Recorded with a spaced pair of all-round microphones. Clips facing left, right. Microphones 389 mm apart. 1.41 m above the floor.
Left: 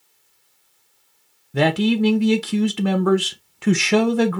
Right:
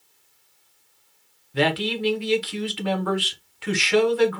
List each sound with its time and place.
1.5 s a man speaking: 65° left (ahead or behind), 0.7 m